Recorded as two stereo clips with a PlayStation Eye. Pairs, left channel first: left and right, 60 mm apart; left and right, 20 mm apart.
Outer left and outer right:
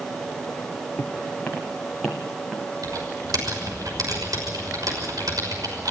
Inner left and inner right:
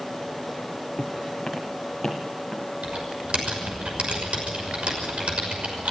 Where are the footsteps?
20° left (ahead or behind), 3.5 m; by 2.7 s centre (ahead or behind), 3.5 m.